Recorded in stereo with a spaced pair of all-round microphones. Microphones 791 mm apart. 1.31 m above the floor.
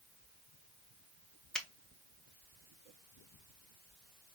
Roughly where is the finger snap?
Centre.